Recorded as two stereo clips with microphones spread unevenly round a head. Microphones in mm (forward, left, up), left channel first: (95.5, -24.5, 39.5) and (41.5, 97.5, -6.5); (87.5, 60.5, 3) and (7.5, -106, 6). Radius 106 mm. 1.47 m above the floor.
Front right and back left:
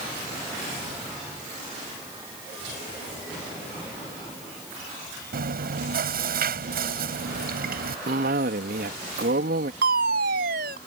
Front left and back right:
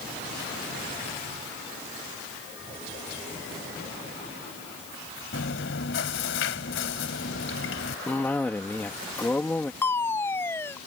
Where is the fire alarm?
145° left.